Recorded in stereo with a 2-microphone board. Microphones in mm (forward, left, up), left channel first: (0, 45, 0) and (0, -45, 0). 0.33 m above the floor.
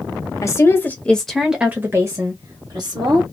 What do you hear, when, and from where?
0.4 s a woman speaking: 35° left (ahead or behind), 1.0 m; by 3.2 s 55° right (ahead or behind), 1.4 m